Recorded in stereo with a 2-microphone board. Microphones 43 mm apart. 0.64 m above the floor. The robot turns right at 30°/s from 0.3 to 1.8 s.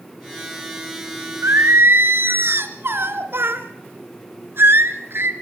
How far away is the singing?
About 2 m.